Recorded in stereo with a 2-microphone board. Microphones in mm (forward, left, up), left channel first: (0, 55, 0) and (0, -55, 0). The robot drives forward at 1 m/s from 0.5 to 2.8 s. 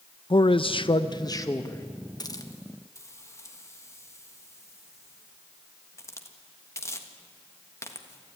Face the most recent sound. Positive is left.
turn(degrees=25)  # may be behind; listen again after turning